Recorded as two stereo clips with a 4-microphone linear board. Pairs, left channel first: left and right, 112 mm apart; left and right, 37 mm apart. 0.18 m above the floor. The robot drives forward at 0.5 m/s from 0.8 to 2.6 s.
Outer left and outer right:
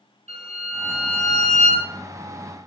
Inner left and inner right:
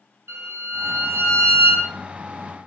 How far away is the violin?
About 1.6 m.